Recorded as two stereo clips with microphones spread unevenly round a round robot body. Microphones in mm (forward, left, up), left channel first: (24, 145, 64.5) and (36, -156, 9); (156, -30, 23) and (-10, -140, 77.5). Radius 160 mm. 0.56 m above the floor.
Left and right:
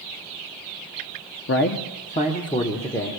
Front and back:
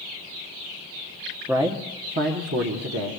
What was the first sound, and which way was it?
A man speaking, 120° left.